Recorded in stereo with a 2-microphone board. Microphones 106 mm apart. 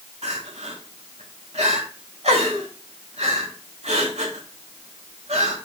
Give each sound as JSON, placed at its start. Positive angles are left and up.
{"t": 0.2, "sound": "crying", "side_deg": -85, "distance_m": 1.9}